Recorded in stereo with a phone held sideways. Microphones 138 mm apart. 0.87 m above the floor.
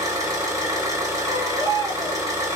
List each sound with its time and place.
0.0 s an engine running: 25° right (ahead or behind), 4.5 m
1.2 s a baby crying: 30° right (ahead or behind), 6 m